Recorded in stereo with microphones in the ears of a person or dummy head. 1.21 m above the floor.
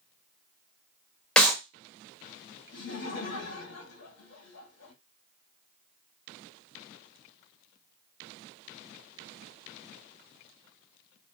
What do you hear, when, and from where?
1.4 s a clap: 5° left (ahead or behind), 1.0 m
2.7 s laughter: 80° left, 2 m